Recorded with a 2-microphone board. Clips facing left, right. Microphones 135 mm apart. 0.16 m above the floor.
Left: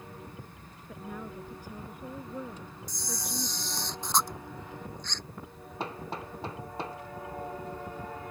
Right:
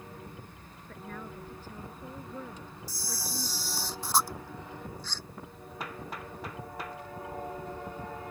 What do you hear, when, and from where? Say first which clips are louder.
0.9 s a woman speaking: left 2 dB; 10° left (ahead or behind)
2.9 s a camera shutter: left 2 dB; 5° right (ahead or behind)
5.8 s hammering: left 4 dB; 25° left (ahead or behind)